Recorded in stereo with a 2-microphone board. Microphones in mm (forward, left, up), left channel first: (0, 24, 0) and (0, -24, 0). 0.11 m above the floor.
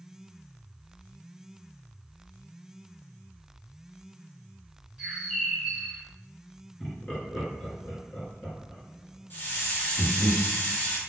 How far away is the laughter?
About 1.2 m.